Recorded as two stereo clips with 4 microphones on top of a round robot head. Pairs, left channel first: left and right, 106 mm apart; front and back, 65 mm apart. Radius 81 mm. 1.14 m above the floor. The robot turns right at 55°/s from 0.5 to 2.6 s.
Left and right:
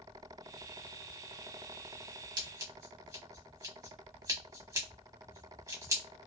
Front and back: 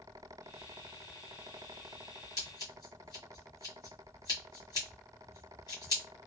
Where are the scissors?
45° right, 1.7 m; by 6.0 s 30° right, 1.7 m.